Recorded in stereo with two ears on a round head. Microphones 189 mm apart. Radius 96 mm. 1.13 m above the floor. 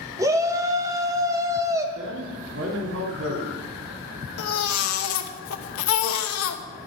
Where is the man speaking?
65° right (ahead or behind), 2 m.